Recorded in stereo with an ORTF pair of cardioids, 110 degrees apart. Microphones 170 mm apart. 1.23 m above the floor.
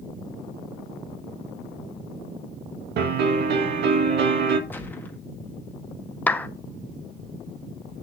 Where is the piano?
65° right, 1.5 m.